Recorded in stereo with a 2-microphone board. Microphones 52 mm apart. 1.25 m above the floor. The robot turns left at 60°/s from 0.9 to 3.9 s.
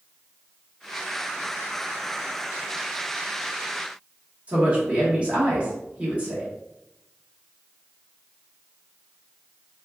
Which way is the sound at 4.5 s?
25° right (ahead or behind).